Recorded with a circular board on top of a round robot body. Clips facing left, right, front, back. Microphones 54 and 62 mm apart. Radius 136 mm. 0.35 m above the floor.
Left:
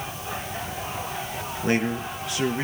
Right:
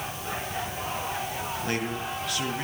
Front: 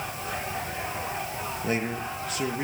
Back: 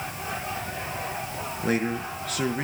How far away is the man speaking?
About 7 m.